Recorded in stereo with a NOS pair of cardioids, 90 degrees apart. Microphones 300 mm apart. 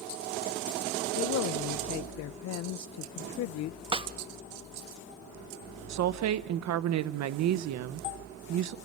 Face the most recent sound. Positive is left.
turn(degrees=-60)